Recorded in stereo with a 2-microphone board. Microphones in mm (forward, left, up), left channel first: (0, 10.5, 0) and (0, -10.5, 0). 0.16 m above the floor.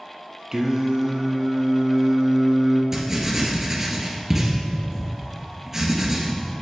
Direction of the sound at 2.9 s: 20° right (ahead or behind).